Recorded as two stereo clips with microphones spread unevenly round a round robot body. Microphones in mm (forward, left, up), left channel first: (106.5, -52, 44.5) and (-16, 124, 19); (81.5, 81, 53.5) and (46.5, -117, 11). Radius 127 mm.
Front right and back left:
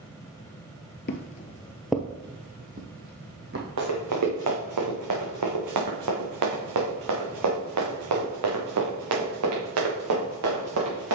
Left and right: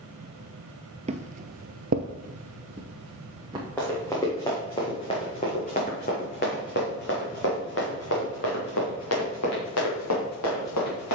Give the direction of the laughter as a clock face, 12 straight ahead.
No laughter in this recording.